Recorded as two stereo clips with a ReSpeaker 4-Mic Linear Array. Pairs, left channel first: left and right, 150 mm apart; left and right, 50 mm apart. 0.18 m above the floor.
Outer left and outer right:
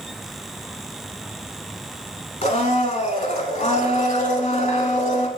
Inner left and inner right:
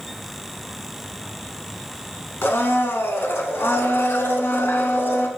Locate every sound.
2.4 s a blender: 55° left (ahead or behind), 0.7 m